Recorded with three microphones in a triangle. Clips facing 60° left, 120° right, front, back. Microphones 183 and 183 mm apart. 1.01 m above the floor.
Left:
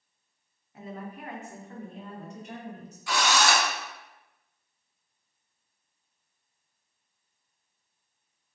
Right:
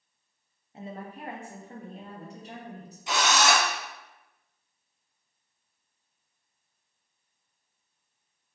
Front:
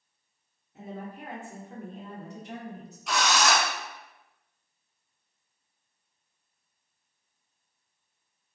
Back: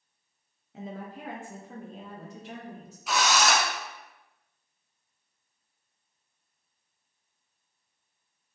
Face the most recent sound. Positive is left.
turn(degrees=-95)